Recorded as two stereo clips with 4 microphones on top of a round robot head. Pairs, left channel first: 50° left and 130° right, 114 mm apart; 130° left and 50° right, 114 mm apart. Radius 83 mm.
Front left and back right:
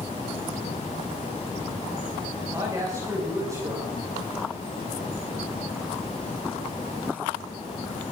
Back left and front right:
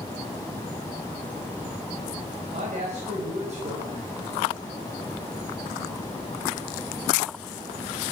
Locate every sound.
2.5 s a woman speaking: 65° right, 4 m